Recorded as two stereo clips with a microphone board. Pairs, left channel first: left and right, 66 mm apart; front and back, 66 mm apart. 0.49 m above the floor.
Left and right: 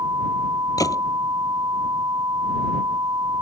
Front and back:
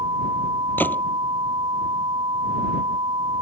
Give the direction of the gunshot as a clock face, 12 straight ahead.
10 o'clock.